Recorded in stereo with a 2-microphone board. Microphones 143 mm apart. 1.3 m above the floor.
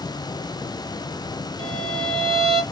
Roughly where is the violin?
Right.